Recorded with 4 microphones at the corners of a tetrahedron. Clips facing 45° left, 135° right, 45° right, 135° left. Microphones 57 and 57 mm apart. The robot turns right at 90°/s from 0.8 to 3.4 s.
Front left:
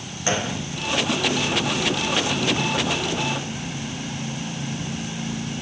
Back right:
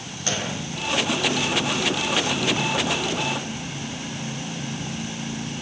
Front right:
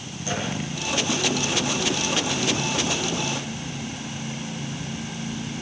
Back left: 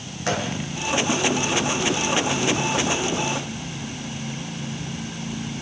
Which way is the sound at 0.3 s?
115° left.